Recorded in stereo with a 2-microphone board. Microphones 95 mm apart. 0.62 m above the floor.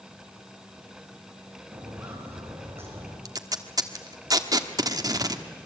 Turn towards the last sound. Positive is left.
turn(degrees=-40)  # may be behind; listen again after turning